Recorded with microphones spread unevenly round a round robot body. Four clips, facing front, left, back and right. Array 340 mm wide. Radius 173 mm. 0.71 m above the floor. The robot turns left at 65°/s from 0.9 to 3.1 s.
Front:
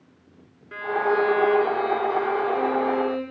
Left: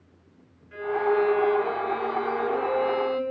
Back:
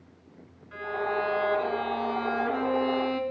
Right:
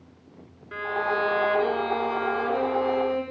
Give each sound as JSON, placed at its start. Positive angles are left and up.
{"t": 0.7, "sound": "a violin", "azimuth_deg": -50, "distance_m": 5.5}